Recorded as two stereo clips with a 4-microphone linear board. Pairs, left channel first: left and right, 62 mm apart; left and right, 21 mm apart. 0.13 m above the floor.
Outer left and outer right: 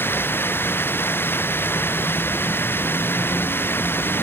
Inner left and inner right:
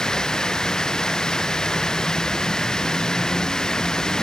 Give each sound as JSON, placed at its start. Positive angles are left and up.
{"t": 0.0, "sound": "running water", "side_deg": 35}